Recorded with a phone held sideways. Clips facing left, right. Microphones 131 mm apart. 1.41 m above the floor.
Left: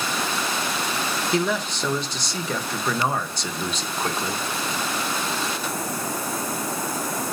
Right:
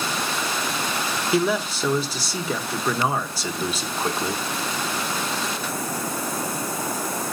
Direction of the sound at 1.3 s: 5° right (ahead or behind).